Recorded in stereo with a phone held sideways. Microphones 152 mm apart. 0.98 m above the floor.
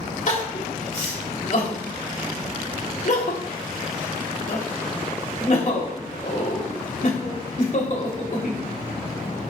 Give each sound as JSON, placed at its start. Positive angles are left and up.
{"t": 0.3, "sound": "crying", "side_deg": 55, "distance_m": 3.0}